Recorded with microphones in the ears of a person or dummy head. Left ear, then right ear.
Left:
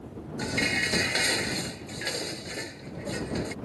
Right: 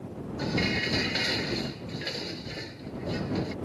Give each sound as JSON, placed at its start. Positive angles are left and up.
{"t": 0.4, "sound": "dishes clattering", "side_deg": 25}